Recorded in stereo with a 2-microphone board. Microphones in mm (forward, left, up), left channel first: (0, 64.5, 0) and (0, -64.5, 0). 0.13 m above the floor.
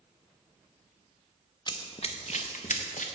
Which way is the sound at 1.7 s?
35° left (ahead or behind).